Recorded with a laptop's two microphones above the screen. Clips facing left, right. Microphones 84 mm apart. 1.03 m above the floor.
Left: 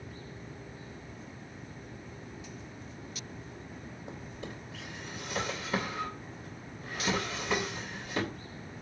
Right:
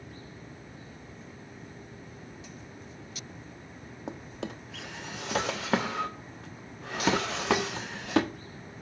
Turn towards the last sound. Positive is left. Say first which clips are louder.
# right 7 dB
turn(degrees=-85)